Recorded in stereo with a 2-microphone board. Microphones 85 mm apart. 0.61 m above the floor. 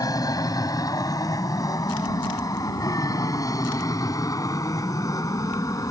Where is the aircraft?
45° left (ahead or behind); by 5.9 s 40° left (ahead or behind).